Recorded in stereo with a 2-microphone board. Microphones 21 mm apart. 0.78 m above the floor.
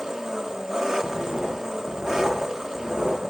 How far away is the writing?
About 8.5 m.